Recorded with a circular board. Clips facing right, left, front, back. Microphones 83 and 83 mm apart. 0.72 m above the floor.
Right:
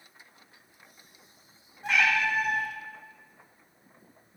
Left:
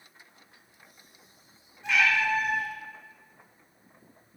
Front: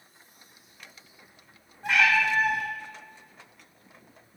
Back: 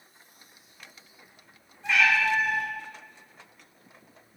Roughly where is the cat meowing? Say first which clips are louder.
Even, even; ahead right.